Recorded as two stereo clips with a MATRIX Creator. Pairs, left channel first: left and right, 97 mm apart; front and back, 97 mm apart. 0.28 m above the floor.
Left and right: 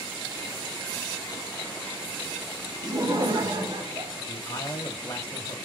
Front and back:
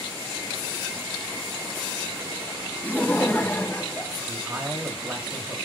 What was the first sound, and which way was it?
Laughter, 65° right.